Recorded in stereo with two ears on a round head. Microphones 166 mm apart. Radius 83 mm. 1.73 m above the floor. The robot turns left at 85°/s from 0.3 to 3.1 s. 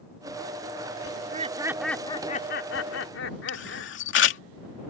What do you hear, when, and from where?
1.1 s laughter: 120° right; by 3.9 s 70° left
3.5 s a camera shutter: 75° left (ahead or behind)